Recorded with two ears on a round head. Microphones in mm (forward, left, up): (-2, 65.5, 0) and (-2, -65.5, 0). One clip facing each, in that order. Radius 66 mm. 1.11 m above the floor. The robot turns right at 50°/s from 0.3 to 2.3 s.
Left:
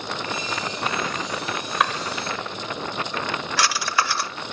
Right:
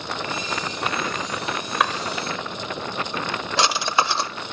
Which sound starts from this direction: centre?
A drawer, at 1.8 s.